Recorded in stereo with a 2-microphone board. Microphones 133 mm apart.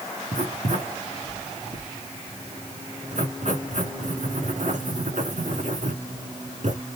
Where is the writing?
75° right (ahead or behind), 2 m.